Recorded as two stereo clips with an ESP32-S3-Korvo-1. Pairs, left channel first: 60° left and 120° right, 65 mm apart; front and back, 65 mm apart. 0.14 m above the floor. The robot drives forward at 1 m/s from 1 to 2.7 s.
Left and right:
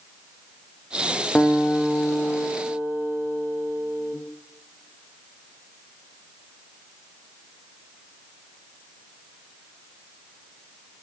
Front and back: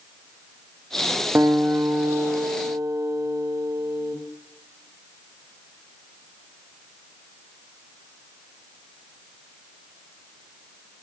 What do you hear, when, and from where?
1.4 s a guitar: 125° left, 2.5 m; by 4.2 s 145° left, 3.5 m